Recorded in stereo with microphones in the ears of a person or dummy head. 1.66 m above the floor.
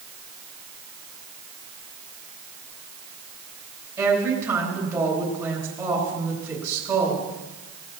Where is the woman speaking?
15° right (ahead or behind), 7 m.